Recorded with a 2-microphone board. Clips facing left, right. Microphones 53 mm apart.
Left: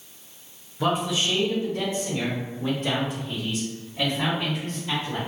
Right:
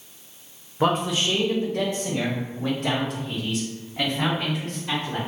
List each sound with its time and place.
0.8 s a man speaking: 50° right (ahead or behind), 0.7 m; by 5.2 s 65° right (ahead or behind), 2.5 m